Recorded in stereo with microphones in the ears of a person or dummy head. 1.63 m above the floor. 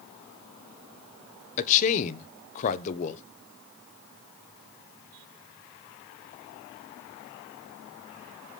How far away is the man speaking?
About 1.1 m.